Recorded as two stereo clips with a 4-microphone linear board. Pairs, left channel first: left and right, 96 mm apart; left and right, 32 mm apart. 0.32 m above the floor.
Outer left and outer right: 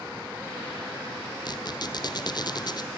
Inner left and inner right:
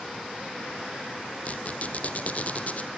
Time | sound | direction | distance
1.4 | a squeak | 45° left (ahead or behind) | 1.0 m